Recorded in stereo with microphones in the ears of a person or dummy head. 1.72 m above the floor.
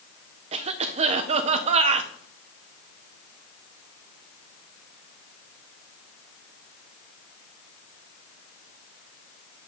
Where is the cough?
40° right (ahead or behind), 0.5 m.